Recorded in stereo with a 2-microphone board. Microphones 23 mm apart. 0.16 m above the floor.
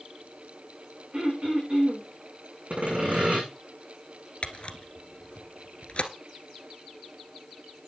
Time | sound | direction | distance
1.1 | throat clearing | 55° right (ahead or behind) | 6.5 m
2.7 | sawing | 60° right (ahead or behind) | 7.5 m
4.4 | a camera shutter | 50° left (ahead or behind) | 1.3 m